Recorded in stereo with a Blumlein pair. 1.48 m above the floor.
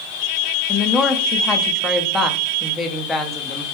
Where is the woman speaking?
15° left, 0.6 m.